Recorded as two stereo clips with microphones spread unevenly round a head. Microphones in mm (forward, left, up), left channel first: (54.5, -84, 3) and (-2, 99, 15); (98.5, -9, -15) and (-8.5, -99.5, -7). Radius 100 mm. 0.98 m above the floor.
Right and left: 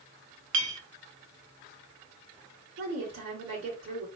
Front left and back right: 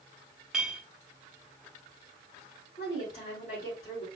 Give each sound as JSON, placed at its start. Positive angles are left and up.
{"t": 0.5, "sound": "a clink", "azimuth_deg": 135, "distance_m": 0.8}
{"t": 2.8, "sound": "a woman speaking", "azimuth_deg": 100, "distance_m": 2.5}